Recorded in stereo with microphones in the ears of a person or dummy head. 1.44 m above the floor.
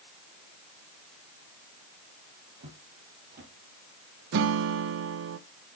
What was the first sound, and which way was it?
Footsteps, 60° right (ahead or behind).